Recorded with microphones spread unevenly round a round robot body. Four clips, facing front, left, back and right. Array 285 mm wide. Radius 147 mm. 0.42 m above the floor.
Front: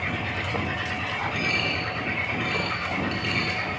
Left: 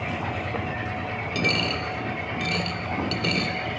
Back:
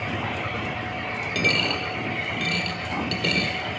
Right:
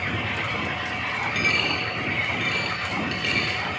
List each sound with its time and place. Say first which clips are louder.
1.4 s a dropped coin: left 4 dB, back 3 dB; 155° left, 0.6 m